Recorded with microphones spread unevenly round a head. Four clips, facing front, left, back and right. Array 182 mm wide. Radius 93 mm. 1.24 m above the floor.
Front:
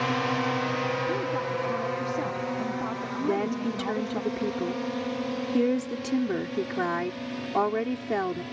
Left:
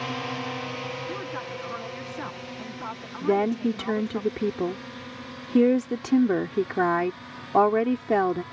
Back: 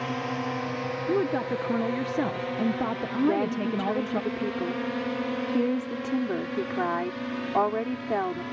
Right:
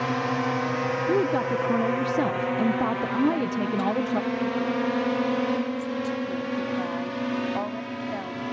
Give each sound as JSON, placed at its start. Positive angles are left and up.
{"t": 0.0, "sound": "a drone", "azimuth_deg": -65}
{"t": 1.1, "sound": "a woman speaking", "azimuth_deg": -125}
{"t": 3.2, "sound": "a woman speaking", "azimuth_deg": 80}